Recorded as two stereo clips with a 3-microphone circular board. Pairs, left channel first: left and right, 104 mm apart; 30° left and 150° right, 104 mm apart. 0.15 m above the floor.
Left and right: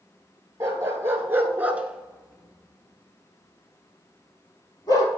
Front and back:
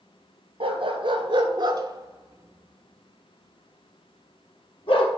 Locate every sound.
0.6 s a dog barking: 150° right, 1.3 m; by 5.1 s 45° left, 1.6 m